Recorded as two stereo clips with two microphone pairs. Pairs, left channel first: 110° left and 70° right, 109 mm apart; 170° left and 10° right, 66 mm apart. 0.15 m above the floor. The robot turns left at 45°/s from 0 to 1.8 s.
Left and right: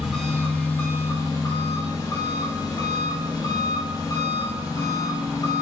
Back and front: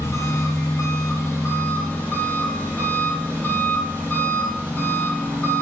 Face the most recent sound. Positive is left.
turn(degrees=120)